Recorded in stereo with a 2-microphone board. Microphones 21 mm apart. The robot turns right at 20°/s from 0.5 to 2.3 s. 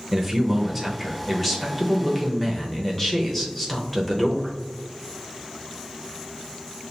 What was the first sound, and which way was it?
A man speaking, 5° right (ahead or behind).